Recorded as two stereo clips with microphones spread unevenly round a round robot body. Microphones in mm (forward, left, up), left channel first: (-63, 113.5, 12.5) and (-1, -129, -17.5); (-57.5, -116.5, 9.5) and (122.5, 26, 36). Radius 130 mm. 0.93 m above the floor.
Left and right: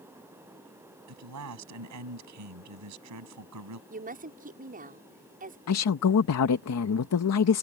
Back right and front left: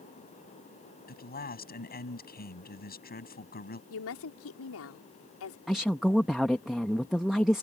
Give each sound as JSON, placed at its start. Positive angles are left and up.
{"t": 1.1, "sound": "a man speaking", "azimuth_deg": -90}
{"t": 3.9, "sound": "a woman speaking", "azimuth_deg": -130}
{"t": 5.7, "sound": "a woman speaking", "azimuth_deg": 130}